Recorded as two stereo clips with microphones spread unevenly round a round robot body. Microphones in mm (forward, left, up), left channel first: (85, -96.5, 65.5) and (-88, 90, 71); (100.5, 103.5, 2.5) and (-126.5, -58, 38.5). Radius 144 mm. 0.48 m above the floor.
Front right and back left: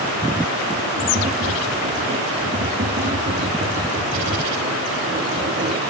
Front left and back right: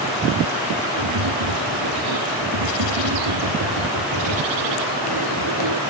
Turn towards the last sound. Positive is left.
turn(degrees=-165)